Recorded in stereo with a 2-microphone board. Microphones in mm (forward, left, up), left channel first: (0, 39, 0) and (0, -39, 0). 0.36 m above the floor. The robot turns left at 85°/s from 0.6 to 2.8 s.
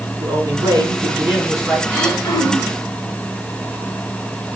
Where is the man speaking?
85° right, 5 m; by 1.8 s 170° left, 5 m.